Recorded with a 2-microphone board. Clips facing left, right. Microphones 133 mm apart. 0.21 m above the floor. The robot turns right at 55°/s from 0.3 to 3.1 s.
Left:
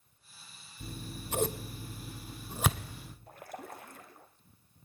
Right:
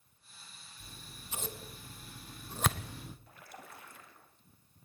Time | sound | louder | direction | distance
0.8 | scissors | left 12 dB | 60° left (ahead or behind) | 1.1 m
3.3 | a splash | left 7 dB | 45° left (ahead or behind) | 3 m